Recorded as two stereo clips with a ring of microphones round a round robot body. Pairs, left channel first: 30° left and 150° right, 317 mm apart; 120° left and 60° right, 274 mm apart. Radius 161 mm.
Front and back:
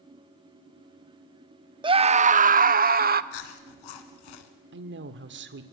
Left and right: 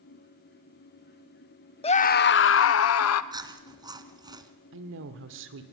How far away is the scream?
About 0.6 m.